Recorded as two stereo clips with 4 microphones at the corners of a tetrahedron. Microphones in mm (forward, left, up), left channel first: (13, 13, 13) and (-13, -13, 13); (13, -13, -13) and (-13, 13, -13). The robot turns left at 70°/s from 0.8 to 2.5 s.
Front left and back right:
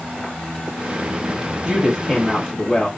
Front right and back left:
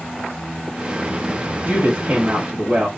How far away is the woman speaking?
About 1.0 m.